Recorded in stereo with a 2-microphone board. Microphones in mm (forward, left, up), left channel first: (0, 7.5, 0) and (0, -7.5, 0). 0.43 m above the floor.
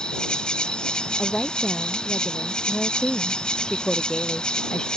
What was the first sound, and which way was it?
An insect, 60° left (ahead or behind).